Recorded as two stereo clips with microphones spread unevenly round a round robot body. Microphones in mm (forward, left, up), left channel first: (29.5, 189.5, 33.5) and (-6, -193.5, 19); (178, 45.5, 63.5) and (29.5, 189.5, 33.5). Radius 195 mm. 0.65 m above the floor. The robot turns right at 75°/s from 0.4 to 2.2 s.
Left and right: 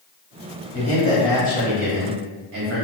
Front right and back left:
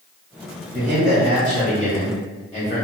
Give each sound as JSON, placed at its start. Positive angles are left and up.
{"t": 0.7, "sound": "a man speaking", "azimuth_deg": 140, "distance_m": 1.7}